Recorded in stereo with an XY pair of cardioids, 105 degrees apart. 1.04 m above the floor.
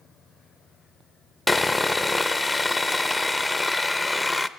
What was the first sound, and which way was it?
Sawing, 5° left.